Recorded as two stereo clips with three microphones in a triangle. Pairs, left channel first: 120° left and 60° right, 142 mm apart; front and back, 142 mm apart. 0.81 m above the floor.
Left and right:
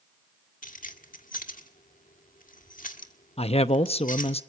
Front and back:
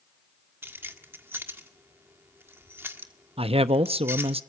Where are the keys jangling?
105° left, 1.4 m.